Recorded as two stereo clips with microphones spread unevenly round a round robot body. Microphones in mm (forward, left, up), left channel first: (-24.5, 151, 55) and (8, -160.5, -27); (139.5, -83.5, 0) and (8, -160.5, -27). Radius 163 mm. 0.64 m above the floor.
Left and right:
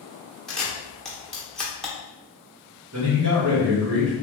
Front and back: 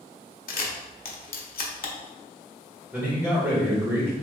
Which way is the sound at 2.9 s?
75° right.